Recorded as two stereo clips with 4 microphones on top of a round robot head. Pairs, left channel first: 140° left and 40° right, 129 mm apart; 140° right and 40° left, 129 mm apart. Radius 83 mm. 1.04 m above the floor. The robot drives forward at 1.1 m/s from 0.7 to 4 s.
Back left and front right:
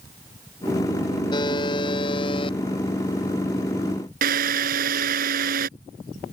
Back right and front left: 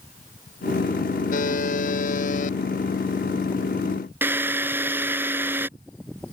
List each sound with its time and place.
1.3 s a buzzer: 160° right; by 2.6 s 165° right
4.2 s a drill: 35° right